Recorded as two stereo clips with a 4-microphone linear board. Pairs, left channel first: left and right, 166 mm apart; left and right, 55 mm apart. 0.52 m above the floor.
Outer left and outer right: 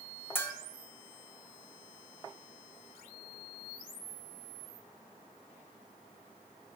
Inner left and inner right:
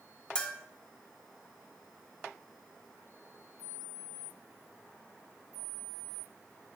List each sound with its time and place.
0.3 s a bell: 15° left (ahead or behind), 0.6 m